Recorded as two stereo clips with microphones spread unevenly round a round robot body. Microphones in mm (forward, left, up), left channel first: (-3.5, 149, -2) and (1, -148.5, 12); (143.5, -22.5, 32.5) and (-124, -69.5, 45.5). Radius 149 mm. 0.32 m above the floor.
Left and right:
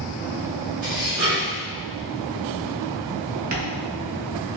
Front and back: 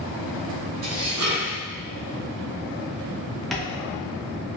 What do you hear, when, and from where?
0.8 s dishes clattering: 150° right, 1.9 m
3.5 s tapping: 75° right, 0.7 m